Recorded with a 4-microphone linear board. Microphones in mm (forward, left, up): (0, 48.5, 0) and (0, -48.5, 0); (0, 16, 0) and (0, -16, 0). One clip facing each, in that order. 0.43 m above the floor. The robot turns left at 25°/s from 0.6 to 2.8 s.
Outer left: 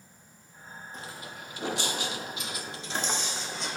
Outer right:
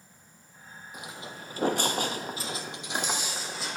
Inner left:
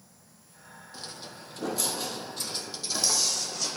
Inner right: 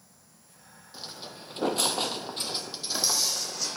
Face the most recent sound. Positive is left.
turn(degrees=0)  # may be behind; listen again after turning